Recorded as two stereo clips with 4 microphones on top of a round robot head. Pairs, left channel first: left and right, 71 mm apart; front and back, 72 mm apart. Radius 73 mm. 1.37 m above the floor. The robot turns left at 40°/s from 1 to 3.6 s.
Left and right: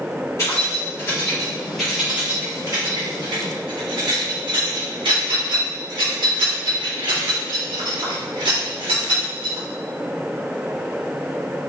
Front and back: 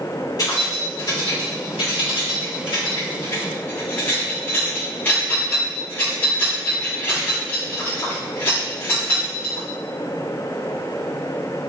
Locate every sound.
0.4 s keys jangling: 30° left, 3 m; by 9.7 s 70° right, 3 m